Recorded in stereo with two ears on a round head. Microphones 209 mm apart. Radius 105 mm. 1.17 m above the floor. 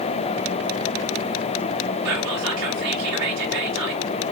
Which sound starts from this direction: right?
Whispering, at 2.0 s.